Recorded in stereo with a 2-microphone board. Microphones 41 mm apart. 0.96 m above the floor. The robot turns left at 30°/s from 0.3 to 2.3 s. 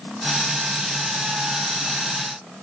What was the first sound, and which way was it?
Only background noise.